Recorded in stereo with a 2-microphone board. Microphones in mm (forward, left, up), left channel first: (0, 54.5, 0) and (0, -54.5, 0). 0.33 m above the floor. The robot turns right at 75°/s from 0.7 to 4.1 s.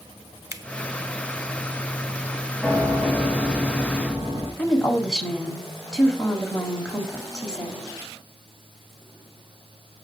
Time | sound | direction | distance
0.5 | a finger snap | 30° right (ahead or behind) | 0.8 m
2.6 | a piano | 175° right | 3.5 m
4.6 | a woman speaking | 5° left (ahead or behind) | 1.7 m